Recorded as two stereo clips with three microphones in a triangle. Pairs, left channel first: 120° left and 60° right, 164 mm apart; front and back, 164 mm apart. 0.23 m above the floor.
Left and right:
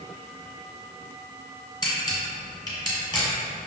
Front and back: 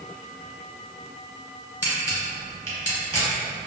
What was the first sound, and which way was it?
A camera shutter, 60° left.